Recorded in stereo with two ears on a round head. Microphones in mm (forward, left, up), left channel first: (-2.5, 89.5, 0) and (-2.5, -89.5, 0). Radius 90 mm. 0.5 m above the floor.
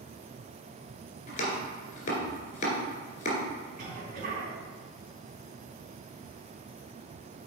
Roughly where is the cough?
Right.